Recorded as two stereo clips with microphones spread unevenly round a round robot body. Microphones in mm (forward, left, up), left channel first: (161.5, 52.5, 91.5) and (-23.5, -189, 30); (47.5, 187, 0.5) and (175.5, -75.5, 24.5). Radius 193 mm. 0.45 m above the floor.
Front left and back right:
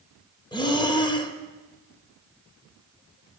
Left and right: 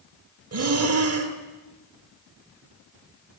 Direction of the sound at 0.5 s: 30° right.